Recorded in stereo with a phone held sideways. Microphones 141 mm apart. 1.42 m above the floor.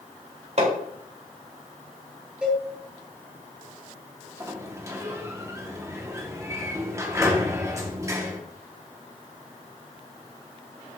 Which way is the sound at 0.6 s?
50° right (ahead or behind).